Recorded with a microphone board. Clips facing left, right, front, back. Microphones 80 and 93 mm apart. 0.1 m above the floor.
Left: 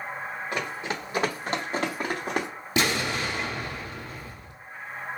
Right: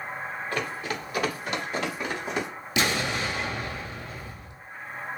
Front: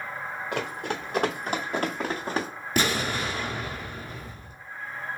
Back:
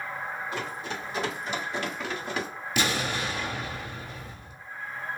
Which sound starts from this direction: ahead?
Running footsteps, at 0.5 s.